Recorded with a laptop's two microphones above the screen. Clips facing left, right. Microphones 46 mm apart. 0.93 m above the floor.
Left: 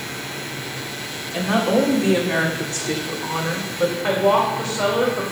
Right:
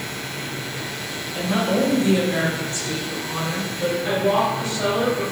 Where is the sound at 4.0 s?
85° left, 2.5 m.